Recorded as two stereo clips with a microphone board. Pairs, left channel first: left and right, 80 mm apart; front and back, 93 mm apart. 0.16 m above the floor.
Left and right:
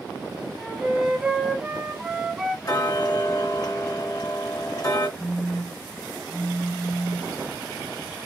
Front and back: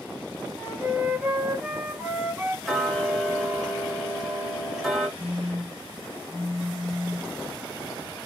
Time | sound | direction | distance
0.6 | a flute | 150° right | 0.8 m
2.6 | ticking | 90° left | 1.8 m
5.2 | a phone buzzing | 140° right | 1.0 m